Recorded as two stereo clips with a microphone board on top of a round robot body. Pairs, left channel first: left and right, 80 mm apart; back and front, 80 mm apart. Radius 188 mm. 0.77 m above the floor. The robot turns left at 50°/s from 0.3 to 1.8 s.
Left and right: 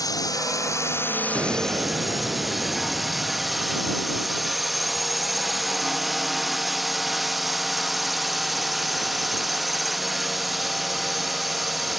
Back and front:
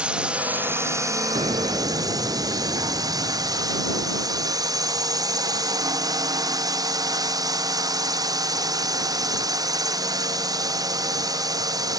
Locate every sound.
0.0 s a drone: 75° left; by 12.0 s straight ahead
1.4 s an explosion: 15° right; by 3.9 s 35° right